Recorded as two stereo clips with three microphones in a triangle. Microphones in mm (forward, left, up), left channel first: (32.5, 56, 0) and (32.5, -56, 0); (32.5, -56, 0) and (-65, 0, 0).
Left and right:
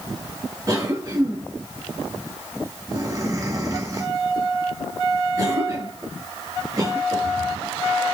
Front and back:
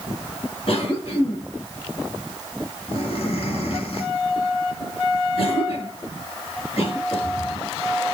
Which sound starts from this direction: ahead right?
A cough, at 0.7 s.